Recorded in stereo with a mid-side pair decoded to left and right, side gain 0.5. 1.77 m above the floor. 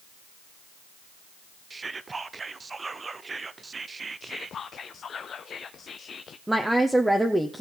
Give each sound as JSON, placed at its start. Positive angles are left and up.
{"t": 1.7, "sound": "whispering", "azimuth_deg": -25, "distance_m": 0.7}
{"t": 4.2, "sound": "whispering", "azimuth_deg": 45, "distance_m": 0.6}
{"t": 6.5, "sound": "a woman speaking", "azimuth_deg": -10, "distance_m": 1.0}